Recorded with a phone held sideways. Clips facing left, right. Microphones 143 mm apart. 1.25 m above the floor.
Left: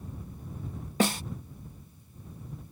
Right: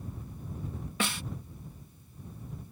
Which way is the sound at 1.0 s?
40° left (ahead or behind).